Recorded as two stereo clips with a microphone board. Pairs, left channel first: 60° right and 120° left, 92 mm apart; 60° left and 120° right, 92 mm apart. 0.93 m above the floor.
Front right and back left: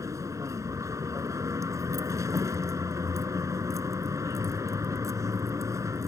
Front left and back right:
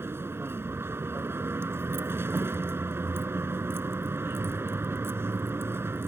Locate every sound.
0.0 s a vehicle: 175° left